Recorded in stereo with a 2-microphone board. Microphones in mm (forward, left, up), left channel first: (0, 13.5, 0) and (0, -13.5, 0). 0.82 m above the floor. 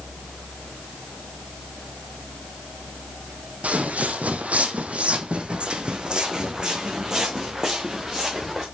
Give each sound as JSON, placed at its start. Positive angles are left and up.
{"t": 3.6, "sound": "footsteps", "side_deg": -60, "distance_m": 1.7}